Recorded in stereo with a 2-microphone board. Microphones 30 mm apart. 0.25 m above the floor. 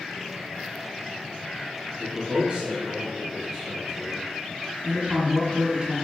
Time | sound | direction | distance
2.0 | a man speaking | 45° right (ahead or behind) | 2.0 m
4.8 | a man speaking | 50° right (ahead or behind) | 1.6 m